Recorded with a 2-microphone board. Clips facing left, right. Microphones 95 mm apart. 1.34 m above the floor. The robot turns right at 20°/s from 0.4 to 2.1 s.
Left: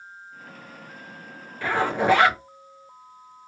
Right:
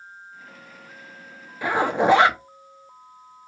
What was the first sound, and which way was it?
A zipper, 15° right (ahead or behind).